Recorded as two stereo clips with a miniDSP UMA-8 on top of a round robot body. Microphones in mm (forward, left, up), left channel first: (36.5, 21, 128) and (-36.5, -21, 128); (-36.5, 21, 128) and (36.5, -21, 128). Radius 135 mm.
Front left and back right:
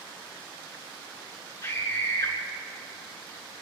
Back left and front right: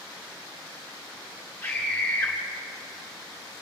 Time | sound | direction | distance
1.6 | a scream | 75° left | 8 m